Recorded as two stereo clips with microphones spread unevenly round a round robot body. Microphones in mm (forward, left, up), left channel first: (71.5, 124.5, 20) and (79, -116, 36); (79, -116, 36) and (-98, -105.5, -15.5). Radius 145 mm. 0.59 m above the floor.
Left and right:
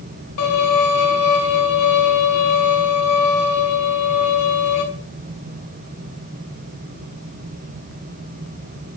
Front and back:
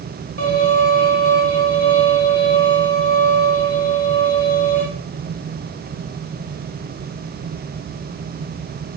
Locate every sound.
0.4 s a violin: 125° left, 5.5 m